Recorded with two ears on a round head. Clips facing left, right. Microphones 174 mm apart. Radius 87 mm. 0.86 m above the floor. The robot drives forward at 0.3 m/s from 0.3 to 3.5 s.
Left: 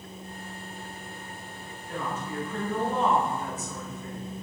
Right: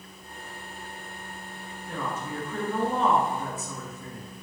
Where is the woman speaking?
60° right (ahead or behind), 1.1 m; by 4.2 s 75° right (ahead or behind), 1.0 m.